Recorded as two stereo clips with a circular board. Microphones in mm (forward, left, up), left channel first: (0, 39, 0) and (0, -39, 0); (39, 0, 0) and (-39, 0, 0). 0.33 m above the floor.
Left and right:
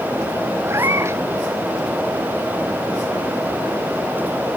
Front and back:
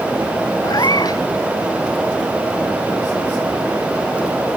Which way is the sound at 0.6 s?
35° right.